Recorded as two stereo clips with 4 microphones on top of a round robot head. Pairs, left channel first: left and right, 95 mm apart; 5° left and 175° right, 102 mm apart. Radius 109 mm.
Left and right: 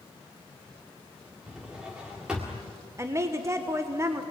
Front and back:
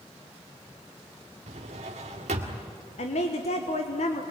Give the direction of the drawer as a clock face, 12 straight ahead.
6 o'clock.